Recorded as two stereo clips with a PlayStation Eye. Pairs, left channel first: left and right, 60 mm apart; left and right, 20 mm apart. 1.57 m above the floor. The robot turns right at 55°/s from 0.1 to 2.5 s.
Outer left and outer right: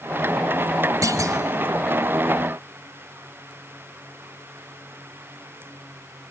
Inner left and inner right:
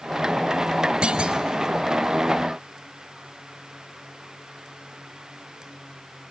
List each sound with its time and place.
1.0 s a clunk: 70° right (ahead or behind), 3 m